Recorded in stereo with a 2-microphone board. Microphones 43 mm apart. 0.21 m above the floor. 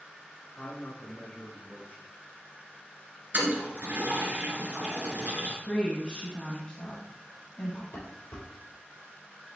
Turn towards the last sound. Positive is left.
turn(degrees=80)